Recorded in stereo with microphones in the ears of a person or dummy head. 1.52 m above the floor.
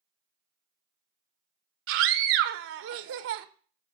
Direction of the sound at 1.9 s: 65° right (ahead or behind).